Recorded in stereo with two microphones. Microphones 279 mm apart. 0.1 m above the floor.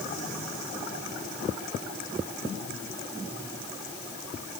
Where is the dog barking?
No dog barking in this recording.